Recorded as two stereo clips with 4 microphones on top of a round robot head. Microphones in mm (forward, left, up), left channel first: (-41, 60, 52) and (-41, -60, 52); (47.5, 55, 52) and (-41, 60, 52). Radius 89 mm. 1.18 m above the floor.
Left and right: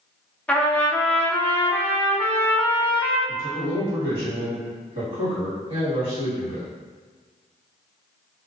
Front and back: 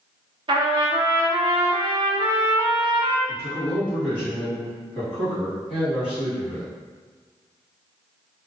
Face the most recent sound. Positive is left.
turn(degrees=-40)